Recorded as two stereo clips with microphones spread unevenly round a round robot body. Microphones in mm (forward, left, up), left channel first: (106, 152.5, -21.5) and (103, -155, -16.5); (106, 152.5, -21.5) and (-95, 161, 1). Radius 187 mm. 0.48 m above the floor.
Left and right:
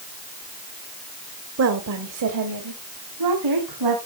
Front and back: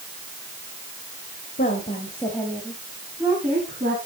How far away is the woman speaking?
About 1.6 m.